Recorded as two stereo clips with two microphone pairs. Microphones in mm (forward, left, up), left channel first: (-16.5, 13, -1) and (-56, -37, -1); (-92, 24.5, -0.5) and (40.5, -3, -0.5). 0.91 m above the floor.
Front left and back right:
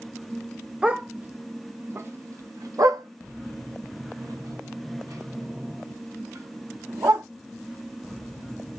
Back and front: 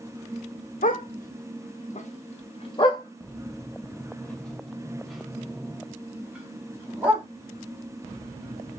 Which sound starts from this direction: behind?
A dog barking, at 0.8 s.